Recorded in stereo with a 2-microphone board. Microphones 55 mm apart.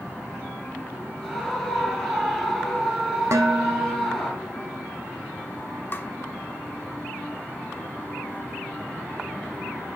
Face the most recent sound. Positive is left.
turn(degrees=40)  # may be behind; listen again after turning